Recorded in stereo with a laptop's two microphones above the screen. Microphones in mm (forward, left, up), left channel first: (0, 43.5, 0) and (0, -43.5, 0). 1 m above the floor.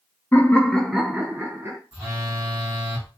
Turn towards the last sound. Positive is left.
turn(degrees=-10)  # may be behind; listen again after turning